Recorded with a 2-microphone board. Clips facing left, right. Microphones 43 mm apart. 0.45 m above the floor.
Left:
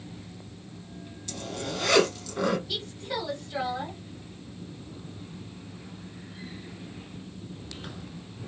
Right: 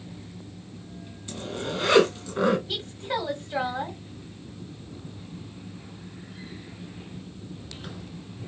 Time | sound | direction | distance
1.3 | a zipper | 20° right (ahead or behind) | 2.5 m
2.7 | a woman speaking | 25° right (ahead or behind) | 1.5 m